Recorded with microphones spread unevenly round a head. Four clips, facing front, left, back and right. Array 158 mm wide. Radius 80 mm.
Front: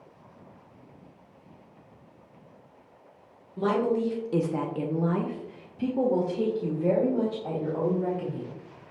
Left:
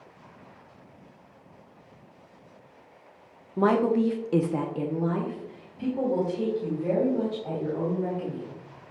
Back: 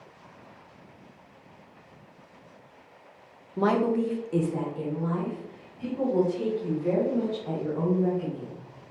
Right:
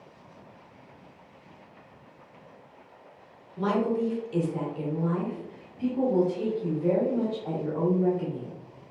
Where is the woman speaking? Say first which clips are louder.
Left 4 dB, back 1 dB; 120° left, 1.4 m; by 8.6 s 5° right, 5 m.